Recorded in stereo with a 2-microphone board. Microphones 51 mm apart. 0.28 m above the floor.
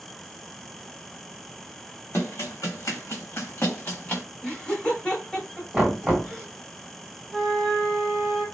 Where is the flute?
15° left (ahead or behind), 1.0 m.